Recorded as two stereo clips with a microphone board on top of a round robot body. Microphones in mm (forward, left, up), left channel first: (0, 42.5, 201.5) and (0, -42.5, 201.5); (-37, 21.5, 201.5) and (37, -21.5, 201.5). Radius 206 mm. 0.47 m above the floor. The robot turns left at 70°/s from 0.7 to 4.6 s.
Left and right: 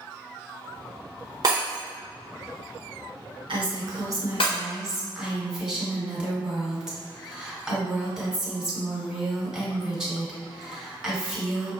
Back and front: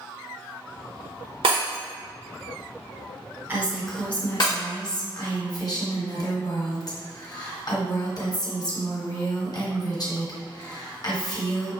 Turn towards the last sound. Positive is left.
turn(degrees=-170)